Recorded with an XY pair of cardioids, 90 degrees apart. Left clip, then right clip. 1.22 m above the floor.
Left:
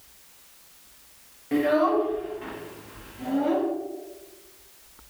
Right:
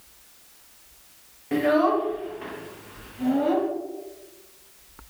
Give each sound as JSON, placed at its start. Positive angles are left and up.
{"t": 1.5, "sound": "a child speaking", "azimuth_deg": -20, "distance_m": 0.6}